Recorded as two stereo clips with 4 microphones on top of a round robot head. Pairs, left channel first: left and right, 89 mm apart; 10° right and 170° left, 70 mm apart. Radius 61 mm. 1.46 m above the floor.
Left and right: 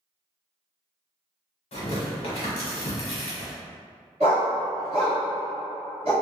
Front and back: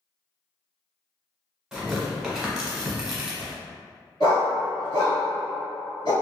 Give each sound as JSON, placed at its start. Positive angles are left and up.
{"t": 1.7, "sound": "tearing paper", "azimuth_deg": 90, "distance_m": 1.0}
{"t": 4.2, "sound": "a dog barking", "azimuth_deg": -60, "distance_m": 1.6}